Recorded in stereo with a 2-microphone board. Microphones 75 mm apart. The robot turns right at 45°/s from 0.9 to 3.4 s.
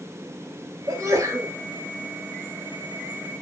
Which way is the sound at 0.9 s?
45° right (ahead or behind).